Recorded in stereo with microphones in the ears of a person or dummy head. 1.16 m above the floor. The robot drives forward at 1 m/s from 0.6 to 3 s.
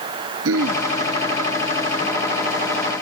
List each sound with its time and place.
0.5 s throat clearing: 85° right; by 0.8 s 90° right